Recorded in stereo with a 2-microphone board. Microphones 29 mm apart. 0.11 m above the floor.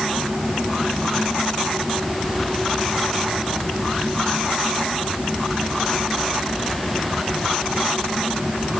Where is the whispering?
I don't hear whispering.